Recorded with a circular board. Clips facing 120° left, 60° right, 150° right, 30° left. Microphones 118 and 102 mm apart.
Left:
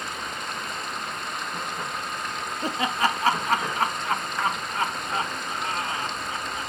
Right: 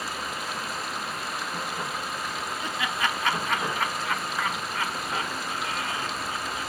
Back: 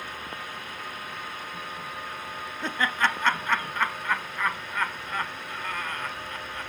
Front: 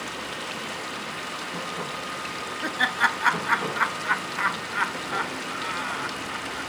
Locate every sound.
0.0 s running water: 25° left
2.6 s laughter: 105° left